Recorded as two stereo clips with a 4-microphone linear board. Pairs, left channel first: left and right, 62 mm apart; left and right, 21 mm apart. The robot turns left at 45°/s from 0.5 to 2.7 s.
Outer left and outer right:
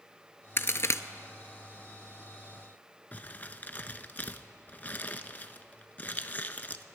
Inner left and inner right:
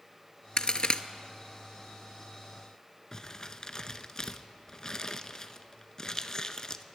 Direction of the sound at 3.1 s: 30° left (ahead or behind).